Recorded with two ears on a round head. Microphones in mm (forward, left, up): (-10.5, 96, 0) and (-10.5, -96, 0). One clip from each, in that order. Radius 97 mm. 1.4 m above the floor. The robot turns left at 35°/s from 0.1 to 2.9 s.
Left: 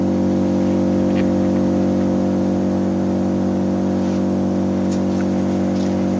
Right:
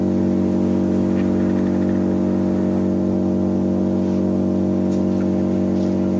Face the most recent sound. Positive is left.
turn(degrees=45)